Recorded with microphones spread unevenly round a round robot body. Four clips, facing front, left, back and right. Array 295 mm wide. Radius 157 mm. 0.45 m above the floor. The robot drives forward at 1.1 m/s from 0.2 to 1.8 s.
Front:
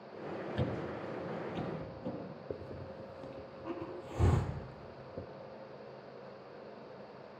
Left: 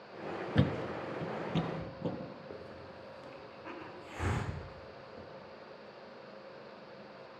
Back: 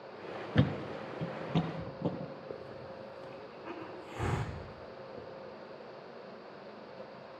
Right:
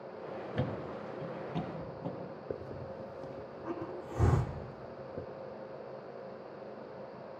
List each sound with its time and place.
0.6 s a thud: 140° left, 0.9 m; by 2.3 s 165° left, 2 m
2.5 s a hiss: 80° right, 0.9 m